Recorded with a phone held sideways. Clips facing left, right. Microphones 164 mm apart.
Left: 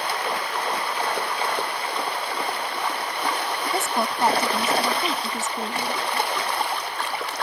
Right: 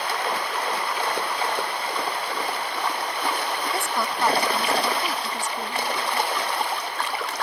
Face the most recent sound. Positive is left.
turn(degrees=20)  # may be behind; listen again after turning